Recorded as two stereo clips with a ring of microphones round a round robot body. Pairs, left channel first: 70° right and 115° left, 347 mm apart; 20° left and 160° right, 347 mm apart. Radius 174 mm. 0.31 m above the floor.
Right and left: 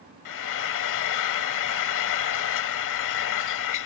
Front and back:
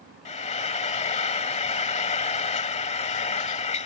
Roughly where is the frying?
Ahead right.